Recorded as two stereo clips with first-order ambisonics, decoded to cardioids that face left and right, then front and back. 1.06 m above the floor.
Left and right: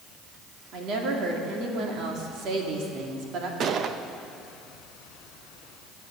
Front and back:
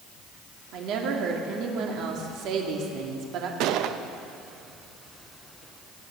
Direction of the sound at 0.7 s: 140° right.